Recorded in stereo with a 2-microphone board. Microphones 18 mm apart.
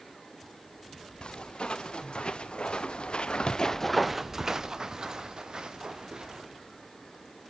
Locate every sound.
1.2 s footsteps: 65° left (ahead or behind), 3 m; by 6.4 s 45° right (ahead or behind), 3 m